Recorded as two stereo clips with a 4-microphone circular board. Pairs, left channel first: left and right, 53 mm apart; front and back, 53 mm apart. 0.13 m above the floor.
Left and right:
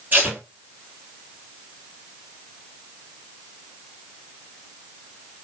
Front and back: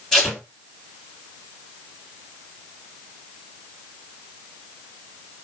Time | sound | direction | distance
0.1 | tape being pulled | 80° right | 1.8 m